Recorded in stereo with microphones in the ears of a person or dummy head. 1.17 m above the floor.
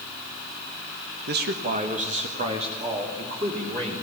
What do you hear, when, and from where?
1.3 s a man speaking: 50° right (ahead or behind), 1.0 m; by 4.0 s 25° right (ahead or behind), 4 m